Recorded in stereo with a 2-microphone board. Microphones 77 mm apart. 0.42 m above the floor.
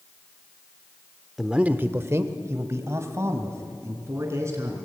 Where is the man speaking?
5° right (ahead or behind), 0.8 m; by 4.8 s 35° right (ahead or behind), 5 m.